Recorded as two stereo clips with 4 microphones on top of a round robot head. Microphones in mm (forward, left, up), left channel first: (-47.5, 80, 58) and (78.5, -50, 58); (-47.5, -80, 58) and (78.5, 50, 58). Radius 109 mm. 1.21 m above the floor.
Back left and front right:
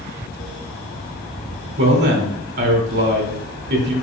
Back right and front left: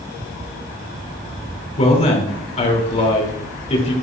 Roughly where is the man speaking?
Right.